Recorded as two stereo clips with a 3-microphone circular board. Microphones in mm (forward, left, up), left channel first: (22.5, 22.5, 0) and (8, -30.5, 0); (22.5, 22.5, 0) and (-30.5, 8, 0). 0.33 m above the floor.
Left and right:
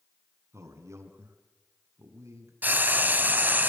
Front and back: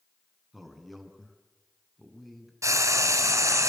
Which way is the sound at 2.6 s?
160° right.